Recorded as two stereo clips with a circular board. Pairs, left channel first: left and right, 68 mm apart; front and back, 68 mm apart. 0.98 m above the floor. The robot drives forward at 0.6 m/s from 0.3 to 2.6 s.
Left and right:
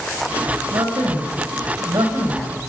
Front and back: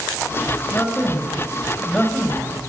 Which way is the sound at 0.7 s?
70° right.